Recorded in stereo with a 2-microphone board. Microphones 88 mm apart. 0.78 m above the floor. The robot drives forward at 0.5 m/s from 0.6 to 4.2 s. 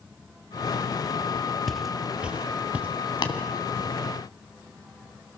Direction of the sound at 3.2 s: 60° left (ahead or behind).